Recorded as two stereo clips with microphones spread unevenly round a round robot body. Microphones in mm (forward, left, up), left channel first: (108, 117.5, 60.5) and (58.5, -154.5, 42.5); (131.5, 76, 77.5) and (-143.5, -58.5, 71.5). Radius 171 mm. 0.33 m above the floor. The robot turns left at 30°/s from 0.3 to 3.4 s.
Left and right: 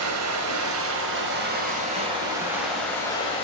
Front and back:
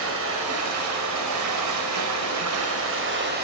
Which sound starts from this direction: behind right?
Running water, at 0.0 s.